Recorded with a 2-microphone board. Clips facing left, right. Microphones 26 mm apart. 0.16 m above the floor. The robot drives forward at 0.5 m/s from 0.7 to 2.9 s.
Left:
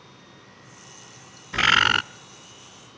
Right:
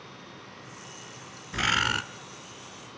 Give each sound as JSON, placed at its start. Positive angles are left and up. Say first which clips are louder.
{"t": 1.5, "sound": "a bird", "louder": "left 7 dB", "side_deg": 25, "distance_m": 0.7}